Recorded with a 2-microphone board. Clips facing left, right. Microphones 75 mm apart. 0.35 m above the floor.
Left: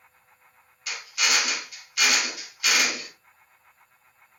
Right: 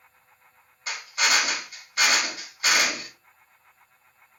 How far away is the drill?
About 2 m.